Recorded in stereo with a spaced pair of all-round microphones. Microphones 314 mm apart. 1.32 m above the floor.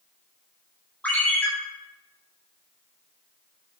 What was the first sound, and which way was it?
A ringtone, 5° left (ahead or behind).